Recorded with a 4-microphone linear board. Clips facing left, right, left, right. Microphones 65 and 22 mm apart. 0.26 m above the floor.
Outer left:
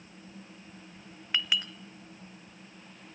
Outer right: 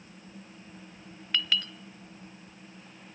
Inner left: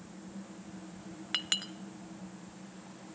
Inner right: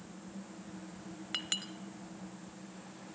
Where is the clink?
15° left (ahead or behind), 0.8 m.